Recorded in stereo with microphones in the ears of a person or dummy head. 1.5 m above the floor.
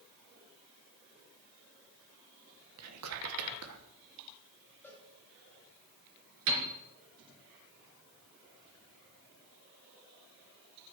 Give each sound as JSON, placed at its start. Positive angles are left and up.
{"t": 2.8, "sound": "whispering", "side_deg": -85, "distance_m": 1.5}
{"t": 4.8, "sound": "a cowbell", "side_deg": 5, "distance_m": 6.0}
{"t": 6.5, "sound": "a piano", "side_deg": -65, "distance_m": 3.5}